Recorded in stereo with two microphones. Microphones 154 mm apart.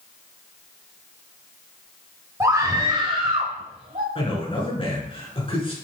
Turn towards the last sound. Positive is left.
turn(degrees=35)  # may be behind; listen again after turning